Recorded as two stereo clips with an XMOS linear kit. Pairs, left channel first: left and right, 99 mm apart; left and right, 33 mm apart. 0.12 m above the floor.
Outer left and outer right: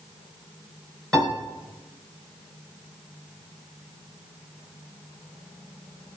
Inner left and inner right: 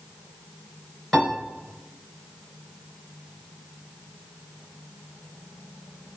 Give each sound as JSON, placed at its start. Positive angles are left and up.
{"t": 1.1, "sound": "a piano", "side_deg": 5, "distance_m": 2.0}